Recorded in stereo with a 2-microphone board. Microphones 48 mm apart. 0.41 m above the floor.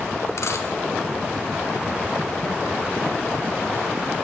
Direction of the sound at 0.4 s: 80° left.